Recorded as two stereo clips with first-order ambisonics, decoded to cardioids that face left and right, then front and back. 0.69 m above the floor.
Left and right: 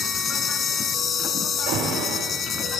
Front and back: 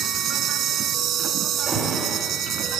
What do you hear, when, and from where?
0.0 s an insect: 145° left, 0.9 m
1.7 s an alarm: 105° right, 3 m